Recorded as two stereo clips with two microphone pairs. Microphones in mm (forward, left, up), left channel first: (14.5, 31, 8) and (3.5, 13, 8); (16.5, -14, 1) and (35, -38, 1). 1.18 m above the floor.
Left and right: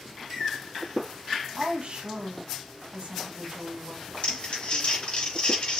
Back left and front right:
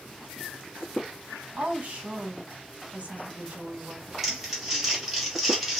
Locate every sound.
1.6 s a woman speaking: 90° right, 1.2 m
4.2 s crumpling: 25° left, 1.7 m